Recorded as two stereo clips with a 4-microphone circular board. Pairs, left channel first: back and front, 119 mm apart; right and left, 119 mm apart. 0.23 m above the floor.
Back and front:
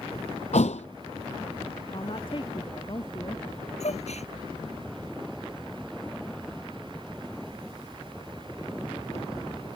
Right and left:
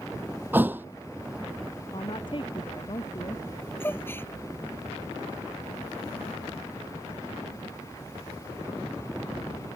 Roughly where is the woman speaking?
Behind right.